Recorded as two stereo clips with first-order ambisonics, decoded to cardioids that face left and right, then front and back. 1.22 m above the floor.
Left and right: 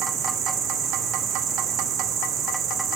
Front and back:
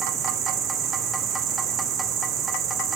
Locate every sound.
0.0 s an insect: 140° right, 1.3 m